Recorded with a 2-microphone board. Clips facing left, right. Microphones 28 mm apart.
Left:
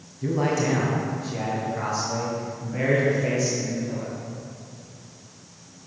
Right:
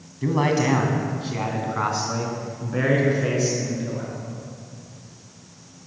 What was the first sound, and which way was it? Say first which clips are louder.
A man speaking: right 3 dB; 55° right (ahead or behind).